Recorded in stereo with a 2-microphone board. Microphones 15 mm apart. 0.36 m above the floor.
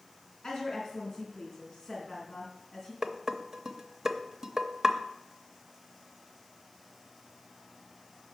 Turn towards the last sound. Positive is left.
turn(degrees=-35)  # may be behind; listen again after turning